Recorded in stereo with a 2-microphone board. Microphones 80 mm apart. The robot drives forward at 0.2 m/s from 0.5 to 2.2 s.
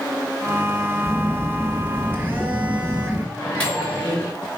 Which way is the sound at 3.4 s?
20° left (ahead or behind).